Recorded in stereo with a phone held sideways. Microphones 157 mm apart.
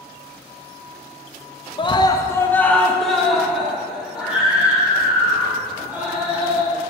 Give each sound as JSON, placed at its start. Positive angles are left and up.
{"t": 1.8, "sound": "a scream", "side_deg": 30, "distance_m": 0.6}